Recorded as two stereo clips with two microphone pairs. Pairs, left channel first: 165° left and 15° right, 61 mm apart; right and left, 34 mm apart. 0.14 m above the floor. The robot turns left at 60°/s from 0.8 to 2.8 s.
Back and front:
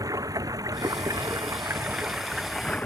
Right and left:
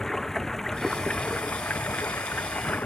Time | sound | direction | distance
0.0 | running water | 10° right | ?